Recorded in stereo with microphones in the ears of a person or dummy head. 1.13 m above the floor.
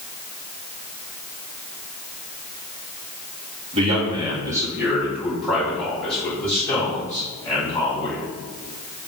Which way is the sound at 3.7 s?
35° right (ahead or behind).